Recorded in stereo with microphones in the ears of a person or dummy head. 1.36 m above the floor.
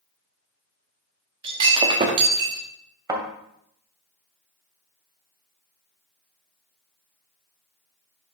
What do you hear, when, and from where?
1.4 s breaking glass: 25° right (ahead or behind), 1.0 m
3.1 s a thud: 25° right (ahead or behind), 1.7 m